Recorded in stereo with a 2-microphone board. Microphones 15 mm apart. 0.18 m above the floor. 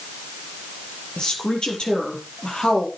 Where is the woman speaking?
75° left (ahead or behind), 5 m.